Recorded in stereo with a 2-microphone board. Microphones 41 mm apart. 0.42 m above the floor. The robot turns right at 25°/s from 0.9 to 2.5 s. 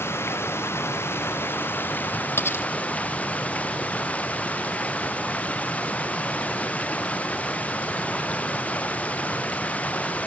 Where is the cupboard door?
I don't hear a cupboard door.